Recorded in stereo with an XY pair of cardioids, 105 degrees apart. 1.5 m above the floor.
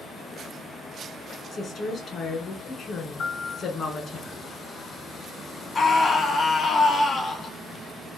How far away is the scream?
About 1.1 m.